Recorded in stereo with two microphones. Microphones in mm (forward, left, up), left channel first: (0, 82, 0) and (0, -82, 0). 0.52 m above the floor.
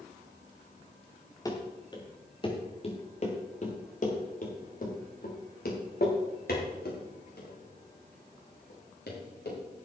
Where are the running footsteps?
20° left (ahead or behind), 3.5 m; by 9.9 s 85° left, 7 m.